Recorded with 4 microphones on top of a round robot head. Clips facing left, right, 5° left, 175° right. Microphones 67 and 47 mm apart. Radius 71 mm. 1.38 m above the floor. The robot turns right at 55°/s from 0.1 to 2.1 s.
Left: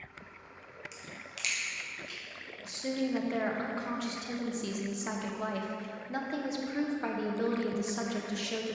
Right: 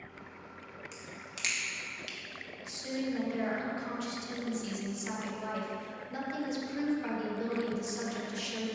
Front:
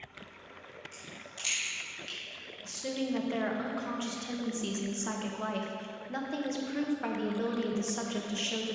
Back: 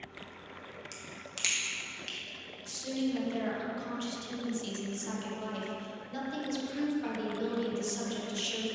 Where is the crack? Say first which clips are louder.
Even, back 1 dB; 175° left, 0.9 m; by 2.2 s 120° right, 0.9 m.